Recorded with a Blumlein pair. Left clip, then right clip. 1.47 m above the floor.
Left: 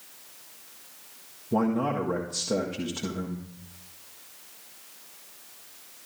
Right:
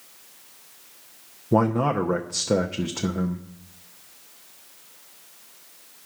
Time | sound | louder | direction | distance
1.5 | a man speaking | right 5 dB | 25° right | 0.8 m